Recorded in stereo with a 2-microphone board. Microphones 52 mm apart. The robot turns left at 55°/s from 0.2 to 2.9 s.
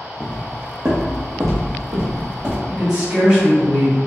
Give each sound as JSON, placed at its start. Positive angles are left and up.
{"t": 0.2, "sound": "footsteps", "side_deg": -15, "distance_m": 0.7}
{"t": 2.7, "sound": "a man speaking", "side_deg": -25, "distance_m": 1.9}